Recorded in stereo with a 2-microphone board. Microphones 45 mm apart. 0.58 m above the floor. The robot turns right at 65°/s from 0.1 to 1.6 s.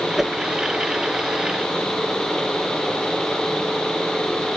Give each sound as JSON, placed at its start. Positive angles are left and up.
{"t": 0.2, "sound": "a whoosh", "side_deg": -10}